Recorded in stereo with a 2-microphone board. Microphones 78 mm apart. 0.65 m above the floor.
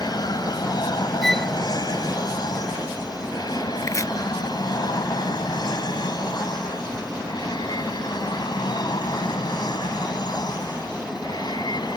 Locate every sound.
0.0 s an aircraft: 60° left (ahead or behind); by 12.0 s 65° left (ahead or behind)
1.2 s a violin: 5° left (ahead or behind)
3.8 s chopping: 45° left (ahead or behind)